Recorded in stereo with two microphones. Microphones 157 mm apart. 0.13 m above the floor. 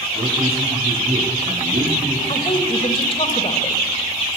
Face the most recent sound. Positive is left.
turn(degrees=35)  # may be behind; listen again after turning